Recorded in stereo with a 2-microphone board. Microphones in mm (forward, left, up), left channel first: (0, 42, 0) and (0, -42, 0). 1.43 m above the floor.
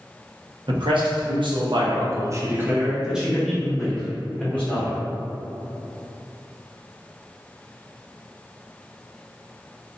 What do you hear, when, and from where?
0.7 s a man speaking: 75° right (ahead or behind), 1.0 m; by 5.0 s 15° left (ahead or behind), 1.7 m